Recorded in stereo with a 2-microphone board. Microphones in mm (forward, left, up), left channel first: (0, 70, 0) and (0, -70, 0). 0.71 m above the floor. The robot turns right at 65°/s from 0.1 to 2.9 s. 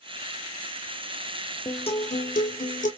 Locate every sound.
1.6 s a guitar: 30° left, 2 m; by 2.9 s 110° left, 2 m